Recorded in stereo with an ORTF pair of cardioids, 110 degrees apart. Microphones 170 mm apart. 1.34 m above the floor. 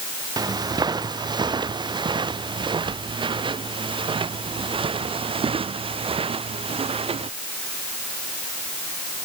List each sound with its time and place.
0.4 s footsteps: 25° right; by 7.3 s 35° right